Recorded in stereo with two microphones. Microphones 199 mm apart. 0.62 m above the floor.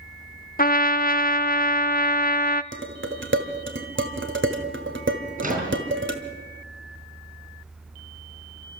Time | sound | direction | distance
0.6 | a trumpet | 45° left (ahead or behind) | 0.6 m
2.7 | dishes clattering | 70° right (ahead or behind) | 1.9 m
5.4 | a microwave | 45° right (ahead or behind) | 6 m